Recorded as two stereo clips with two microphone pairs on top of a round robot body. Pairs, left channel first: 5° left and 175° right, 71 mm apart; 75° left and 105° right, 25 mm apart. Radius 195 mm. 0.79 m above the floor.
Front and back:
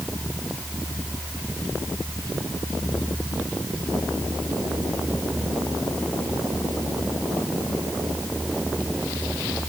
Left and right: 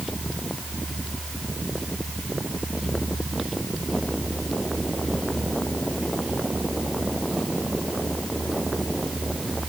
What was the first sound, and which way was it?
Only background noise.